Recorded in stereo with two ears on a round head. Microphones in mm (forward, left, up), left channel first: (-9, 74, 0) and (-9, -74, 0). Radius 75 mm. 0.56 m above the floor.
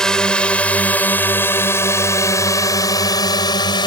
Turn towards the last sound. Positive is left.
turn(degrees=30)  # may be behind; listen again after turning